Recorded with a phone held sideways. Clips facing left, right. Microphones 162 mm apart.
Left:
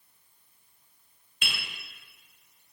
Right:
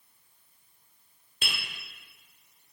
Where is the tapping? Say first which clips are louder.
Even; 40° right (ahead or behind), 1.9 m.